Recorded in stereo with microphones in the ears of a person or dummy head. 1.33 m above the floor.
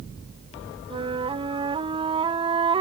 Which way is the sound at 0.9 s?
35° right (ahead or behind).